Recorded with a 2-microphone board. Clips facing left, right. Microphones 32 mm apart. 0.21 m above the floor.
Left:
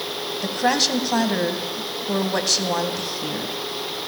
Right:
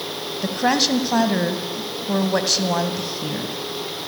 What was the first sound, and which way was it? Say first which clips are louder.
A woman speaking: right 1 dB; 5° right (ahead or behind).